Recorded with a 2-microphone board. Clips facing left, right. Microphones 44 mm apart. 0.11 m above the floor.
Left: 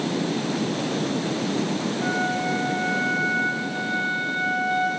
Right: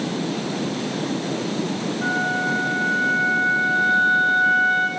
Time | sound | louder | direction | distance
2.0 | a flute | right 4 dB | 40° right (ahead or behind) | 5 m